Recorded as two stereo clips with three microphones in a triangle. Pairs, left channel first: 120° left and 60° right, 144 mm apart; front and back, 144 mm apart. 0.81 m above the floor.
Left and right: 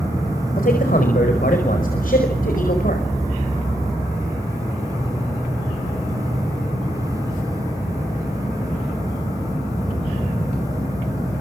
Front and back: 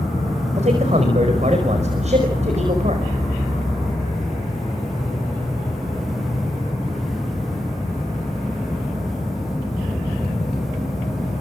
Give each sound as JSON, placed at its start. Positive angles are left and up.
{"t": 0.6, "sound": "a man speaking", "azimuth_deg": 140, "distance_m": 5.0}